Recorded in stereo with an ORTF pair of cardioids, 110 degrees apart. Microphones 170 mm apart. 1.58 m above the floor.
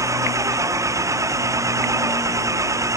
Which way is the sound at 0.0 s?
20° right.